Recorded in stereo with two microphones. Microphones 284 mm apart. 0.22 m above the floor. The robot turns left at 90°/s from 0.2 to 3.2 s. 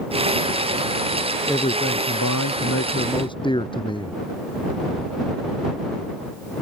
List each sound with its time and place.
1.5 s a man speaking: 170° left; by 4.1 s 15° left